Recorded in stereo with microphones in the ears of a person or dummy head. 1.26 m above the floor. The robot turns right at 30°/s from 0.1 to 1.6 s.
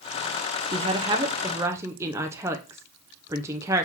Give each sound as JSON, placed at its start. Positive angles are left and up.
{"t": 0.7, "sound": "a woman speaking", "side_deg": -25, "distance_m": 0.6}